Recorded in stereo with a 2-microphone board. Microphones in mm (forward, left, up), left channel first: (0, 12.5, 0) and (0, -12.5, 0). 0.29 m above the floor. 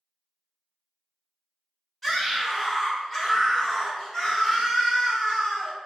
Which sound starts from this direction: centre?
A scream, at 2.0 s.